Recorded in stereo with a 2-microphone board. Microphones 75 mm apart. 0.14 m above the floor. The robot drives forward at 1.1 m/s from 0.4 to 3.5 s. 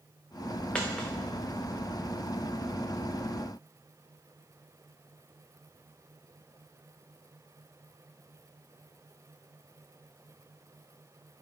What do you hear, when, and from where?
0.8 s a dropped coin: 15° left (ahead or behind), 2 m